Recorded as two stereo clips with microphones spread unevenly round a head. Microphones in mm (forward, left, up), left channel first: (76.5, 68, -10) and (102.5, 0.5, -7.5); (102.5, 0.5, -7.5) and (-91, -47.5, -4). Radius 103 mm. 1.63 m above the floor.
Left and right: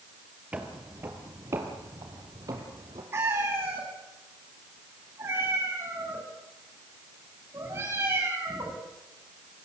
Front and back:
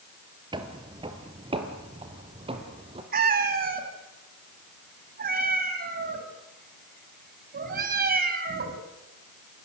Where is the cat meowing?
130° right, 2.5 m.